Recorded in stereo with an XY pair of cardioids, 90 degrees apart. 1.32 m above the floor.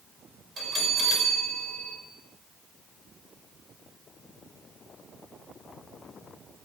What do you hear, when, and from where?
0.6 s a bell: 40° right, 6 m